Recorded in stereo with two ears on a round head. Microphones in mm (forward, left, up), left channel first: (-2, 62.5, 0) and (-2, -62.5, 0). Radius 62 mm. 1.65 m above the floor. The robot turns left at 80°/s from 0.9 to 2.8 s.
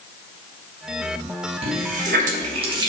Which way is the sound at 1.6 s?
50° right.